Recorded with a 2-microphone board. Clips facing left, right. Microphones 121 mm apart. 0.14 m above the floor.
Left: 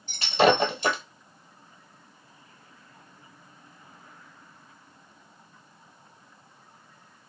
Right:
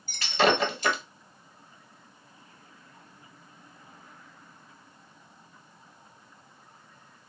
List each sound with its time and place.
0.1 s breaking glass: 30° left (ahead or behind), 1.2 m